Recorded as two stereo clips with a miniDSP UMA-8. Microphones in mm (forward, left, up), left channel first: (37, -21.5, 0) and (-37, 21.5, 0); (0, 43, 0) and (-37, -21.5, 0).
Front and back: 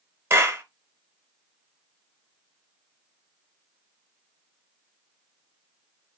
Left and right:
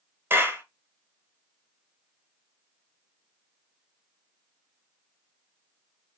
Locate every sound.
0.3 s a clap: 165° right, 1.4 m